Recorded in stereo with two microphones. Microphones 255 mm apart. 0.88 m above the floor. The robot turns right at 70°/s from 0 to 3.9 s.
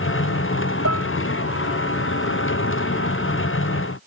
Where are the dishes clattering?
70° right (ahead or behind); by 1.1 s 85° right.